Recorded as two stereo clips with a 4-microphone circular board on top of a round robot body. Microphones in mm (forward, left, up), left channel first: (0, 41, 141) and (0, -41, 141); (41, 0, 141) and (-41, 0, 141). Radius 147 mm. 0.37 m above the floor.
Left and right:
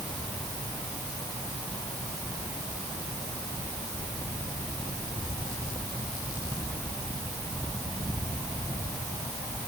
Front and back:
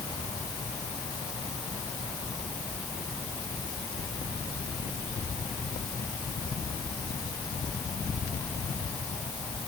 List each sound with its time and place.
Only background noise.